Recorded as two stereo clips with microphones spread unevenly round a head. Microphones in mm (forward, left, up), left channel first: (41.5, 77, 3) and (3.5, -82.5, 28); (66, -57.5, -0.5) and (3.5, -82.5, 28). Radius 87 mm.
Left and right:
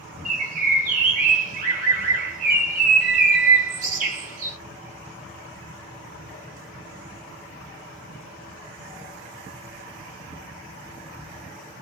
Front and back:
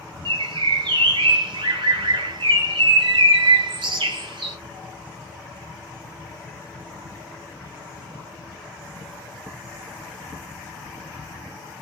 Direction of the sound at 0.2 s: 150° right.